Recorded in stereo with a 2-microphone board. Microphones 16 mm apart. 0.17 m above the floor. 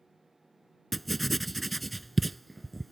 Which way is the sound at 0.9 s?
Centre (ahead or behind).